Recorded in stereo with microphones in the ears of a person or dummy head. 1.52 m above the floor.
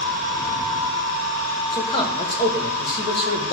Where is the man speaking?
30° left (ahead or behind), 1.4 m.